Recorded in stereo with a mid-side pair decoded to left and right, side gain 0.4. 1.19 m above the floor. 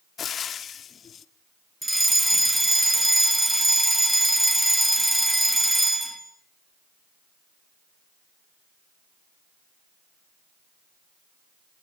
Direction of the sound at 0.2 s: 60° left.